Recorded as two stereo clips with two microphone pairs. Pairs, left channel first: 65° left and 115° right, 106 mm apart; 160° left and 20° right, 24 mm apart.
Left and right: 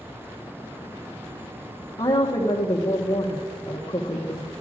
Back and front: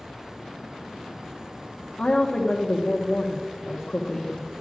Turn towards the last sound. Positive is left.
turn(degrees=110)